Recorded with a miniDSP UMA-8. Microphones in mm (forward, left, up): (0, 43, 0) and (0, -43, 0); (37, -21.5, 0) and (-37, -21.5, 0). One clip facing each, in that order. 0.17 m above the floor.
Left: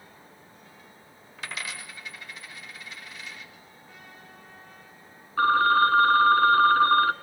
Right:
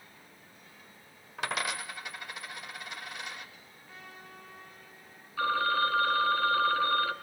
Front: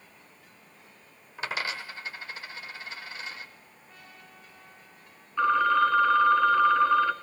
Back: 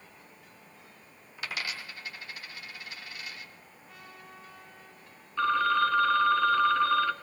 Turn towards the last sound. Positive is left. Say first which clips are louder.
# left 8 dB, front 3 dB
turn(degrees=80)